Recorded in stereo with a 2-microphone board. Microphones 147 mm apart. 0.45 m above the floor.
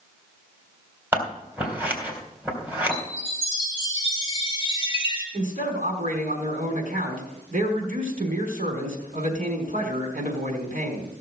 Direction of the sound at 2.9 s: 35° right (ahead or behind).